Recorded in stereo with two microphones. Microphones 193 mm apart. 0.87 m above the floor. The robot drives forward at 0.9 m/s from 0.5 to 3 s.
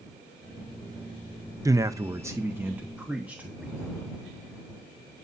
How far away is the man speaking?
About 0.6 m.